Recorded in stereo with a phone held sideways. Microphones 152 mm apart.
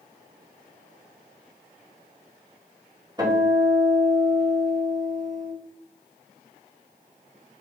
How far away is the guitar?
About 5 m.